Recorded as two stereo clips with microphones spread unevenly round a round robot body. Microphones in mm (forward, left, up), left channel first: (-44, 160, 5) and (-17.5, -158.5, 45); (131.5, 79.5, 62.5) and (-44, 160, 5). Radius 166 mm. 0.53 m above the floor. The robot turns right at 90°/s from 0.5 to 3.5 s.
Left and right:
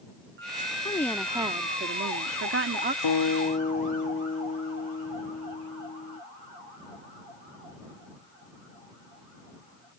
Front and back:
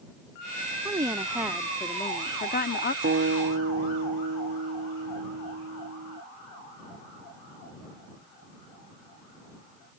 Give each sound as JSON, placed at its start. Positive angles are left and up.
{"t": 0.8, "sound": "a woman speaking", "azimuth_deg": 145}
{"t": 3.0, "sound": "a guitar", "azimuth_deg": 120}